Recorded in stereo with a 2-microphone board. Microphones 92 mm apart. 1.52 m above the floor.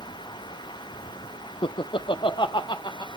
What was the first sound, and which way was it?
Laughter, 75° left (ahead or behind).